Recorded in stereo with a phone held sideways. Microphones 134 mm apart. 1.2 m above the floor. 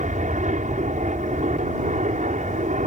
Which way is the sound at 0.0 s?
65° right (ahead or behind).